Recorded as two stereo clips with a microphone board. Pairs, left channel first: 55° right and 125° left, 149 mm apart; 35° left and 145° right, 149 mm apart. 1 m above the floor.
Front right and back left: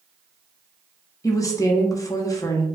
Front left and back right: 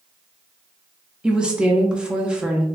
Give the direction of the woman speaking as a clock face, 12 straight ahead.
2 o'clock.